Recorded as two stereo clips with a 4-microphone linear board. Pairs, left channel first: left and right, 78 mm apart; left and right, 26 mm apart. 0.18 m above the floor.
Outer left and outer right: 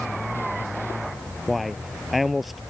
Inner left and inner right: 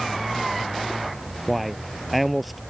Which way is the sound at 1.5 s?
Centre (ahead or behind).